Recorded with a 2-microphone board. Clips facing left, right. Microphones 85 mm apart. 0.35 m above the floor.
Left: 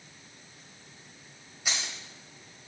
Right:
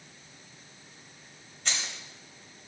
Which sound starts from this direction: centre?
Keys jangling, at 1.6 s.